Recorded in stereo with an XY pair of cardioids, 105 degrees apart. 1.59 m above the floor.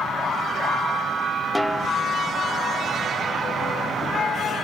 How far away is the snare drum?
About 0.6 m.